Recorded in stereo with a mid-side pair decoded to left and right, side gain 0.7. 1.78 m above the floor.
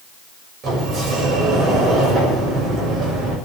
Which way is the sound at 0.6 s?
40° right.